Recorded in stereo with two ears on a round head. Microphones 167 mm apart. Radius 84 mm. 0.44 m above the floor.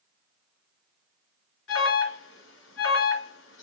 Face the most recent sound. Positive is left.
turn(degrees=80)